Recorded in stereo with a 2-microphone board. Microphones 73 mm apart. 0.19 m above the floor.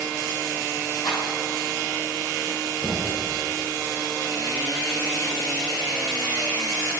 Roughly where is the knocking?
Left.